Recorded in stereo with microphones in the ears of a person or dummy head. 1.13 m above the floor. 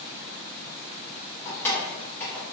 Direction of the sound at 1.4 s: 15° left (ahead or behind).